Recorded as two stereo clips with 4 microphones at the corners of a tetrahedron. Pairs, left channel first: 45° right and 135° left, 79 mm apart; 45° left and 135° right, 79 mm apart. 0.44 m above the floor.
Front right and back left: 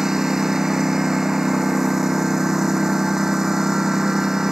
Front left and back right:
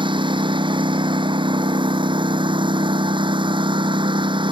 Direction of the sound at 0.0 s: 140° right.